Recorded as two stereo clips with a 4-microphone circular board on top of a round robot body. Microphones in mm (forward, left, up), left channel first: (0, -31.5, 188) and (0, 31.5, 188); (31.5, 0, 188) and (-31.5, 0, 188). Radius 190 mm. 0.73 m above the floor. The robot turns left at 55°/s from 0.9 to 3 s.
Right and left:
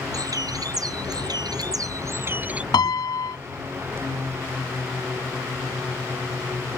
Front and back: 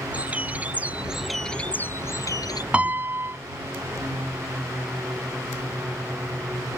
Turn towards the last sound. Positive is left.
turn(degrees=-120)